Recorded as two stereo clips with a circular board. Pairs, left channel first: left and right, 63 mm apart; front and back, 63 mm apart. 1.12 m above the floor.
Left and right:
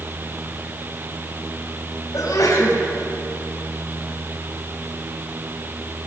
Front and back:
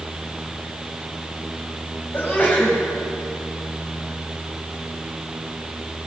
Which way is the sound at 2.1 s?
60° left.